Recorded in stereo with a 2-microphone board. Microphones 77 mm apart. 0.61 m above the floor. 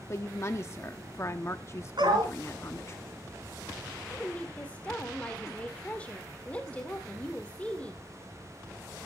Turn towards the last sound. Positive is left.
turn(degrees=20)  # may be behind; listen again after turning